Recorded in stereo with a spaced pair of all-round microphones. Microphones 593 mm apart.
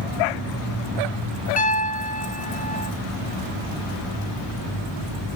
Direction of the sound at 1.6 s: 15° left (ahead or behind).